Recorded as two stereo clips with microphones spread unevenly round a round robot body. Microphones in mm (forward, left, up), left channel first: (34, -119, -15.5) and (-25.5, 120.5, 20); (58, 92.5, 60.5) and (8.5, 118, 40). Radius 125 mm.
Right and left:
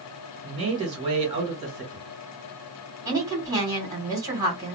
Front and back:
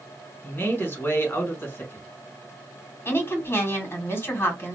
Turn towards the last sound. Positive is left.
turn(degrees=25)